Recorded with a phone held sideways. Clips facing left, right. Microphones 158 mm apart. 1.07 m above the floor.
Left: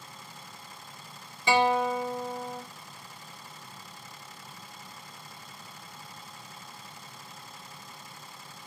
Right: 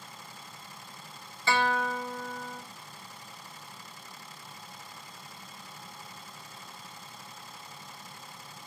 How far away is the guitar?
About 0.5 m.